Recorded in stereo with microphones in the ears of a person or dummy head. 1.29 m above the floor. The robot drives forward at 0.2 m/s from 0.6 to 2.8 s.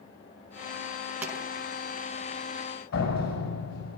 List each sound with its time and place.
1.2 s a pop: 10° right (ahead or behind), 6 m
2.9 s a door slam: 70° left (ahead or behind), 5 m